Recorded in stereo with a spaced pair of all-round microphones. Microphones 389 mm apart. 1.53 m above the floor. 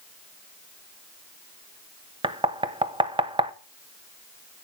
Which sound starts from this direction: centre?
Knocking, at 2.2 s.